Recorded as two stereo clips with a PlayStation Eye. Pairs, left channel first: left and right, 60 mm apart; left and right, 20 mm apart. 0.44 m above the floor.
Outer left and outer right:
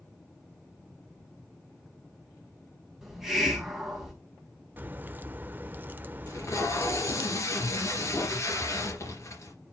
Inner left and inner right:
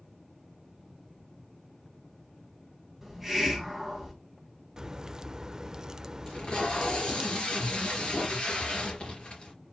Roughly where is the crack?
Right.